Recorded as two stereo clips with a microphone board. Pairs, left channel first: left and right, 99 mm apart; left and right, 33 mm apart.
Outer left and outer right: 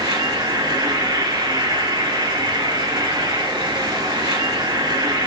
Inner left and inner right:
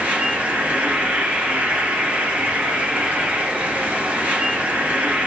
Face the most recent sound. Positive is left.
turn(degrees=-50)  # may be behind; listen again after turning